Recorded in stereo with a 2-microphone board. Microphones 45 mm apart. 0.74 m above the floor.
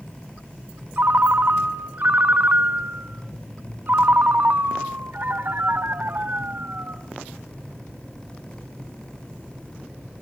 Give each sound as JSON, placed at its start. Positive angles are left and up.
{"t": 1.0, "sound": "a ringtone", "side_deg": -45, "distance_m": 1.0}